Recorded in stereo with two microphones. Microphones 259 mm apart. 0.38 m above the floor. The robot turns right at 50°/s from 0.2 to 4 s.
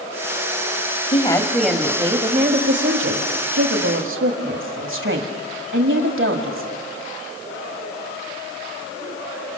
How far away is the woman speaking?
About 1.7 m.